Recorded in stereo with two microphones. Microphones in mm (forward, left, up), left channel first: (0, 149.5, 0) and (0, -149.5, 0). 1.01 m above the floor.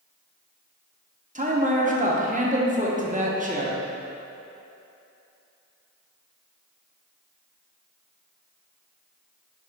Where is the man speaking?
25° right (ahead or behind), 0.8 m.